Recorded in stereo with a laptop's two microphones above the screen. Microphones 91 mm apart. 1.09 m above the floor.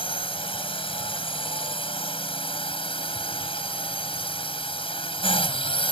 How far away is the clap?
No clap in this recording.